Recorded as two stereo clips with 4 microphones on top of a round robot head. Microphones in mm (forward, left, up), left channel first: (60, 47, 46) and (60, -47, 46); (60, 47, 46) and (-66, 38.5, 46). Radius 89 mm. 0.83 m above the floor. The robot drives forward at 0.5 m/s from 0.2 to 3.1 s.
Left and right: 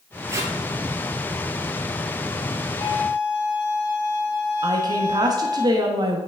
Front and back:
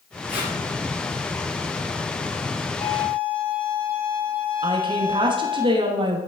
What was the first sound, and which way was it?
Tape being pulled, 30° right.